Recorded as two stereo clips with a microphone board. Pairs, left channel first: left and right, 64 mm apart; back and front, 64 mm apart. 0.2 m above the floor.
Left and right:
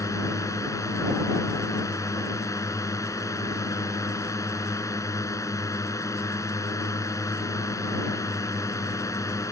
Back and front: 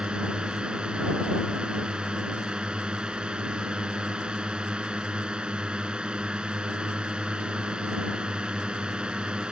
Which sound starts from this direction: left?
A drone, at 0.0 s.